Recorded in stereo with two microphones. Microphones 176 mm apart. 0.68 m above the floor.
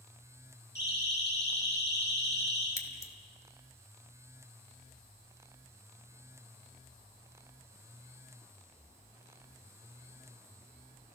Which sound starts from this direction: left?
A siren, at 0.8 s.